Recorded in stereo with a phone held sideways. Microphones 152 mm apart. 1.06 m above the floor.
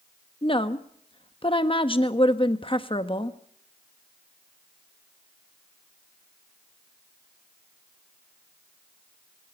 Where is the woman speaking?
35° left (ahead or behind), 1.2 m.